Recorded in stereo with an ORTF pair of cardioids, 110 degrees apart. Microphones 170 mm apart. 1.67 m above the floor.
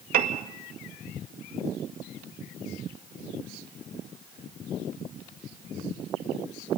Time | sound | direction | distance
0.1 | a piano | 65° right | 2.0 m